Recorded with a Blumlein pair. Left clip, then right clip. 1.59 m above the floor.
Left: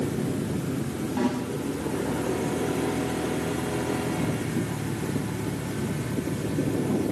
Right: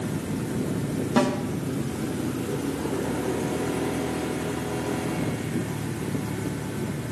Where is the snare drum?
45° right, 6.5 m.